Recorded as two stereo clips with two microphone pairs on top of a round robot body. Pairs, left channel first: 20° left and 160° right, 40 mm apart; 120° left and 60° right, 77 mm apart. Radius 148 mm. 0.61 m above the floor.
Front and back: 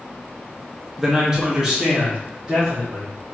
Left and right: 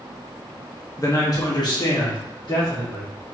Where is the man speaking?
120° left, 0.9 m; by 3.1 s 125° left, 2 m.